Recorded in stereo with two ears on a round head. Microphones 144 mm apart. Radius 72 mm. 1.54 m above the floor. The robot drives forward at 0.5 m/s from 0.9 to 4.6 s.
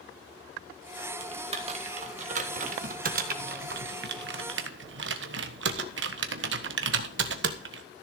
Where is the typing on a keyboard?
35° right (ahead or behind), 2.5 m; by 7.8 s 80° right, 1.4 m.